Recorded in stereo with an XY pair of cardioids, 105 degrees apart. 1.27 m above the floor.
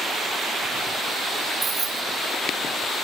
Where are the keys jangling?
45° right, 0.7 m.